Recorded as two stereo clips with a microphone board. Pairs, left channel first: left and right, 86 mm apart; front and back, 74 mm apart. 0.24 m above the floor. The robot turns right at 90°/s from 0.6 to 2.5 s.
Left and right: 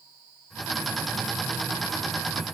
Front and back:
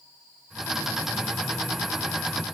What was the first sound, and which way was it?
Only background noise.